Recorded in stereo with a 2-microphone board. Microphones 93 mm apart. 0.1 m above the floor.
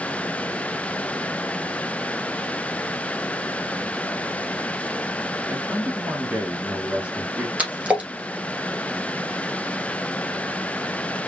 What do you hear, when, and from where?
5.5 s a man speaking: 10° right (ahead or behind), 1.3 m
7.6 s a splash: 15° right (ahead or behind), 1.5 m